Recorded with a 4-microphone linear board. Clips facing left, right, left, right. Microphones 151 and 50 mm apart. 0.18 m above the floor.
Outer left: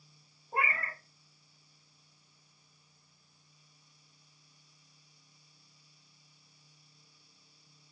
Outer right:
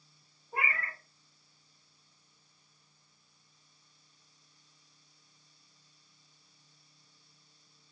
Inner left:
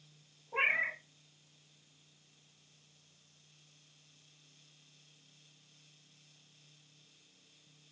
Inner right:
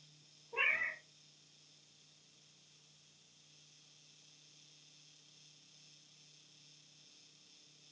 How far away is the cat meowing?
About 1.1 m.